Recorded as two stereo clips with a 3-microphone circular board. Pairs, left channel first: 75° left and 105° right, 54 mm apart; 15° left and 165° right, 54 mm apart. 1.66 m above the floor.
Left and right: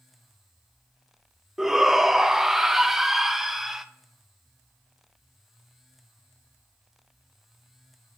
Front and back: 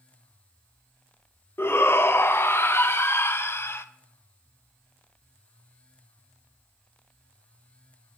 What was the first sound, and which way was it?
A shout, 20° right.